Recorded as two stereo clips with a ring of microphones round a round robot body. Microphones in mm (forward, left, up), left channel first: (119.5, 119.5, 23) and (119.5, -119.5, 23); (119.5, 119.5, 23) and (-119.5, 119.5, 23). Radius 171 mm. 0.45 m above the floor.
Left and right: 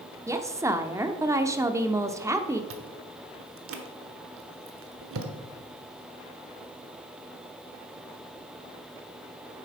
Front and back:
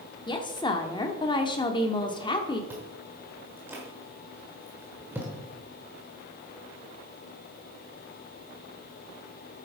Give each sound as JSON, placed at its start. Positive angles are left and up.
{"t": 0.3, "sound": "a woman speaking", "azimuth_deg": -35, "distance_m": 0.8}
{"t": 2.7, "sound": "chewing", "azimuth_deg": -100, "distance_m": 1.2}